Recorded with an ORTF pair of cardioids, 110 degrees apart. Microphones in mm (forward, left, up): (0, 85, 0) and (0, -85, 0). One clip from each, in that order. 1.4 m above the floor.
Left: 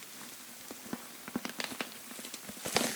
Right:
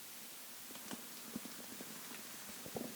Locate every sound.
Only background noise.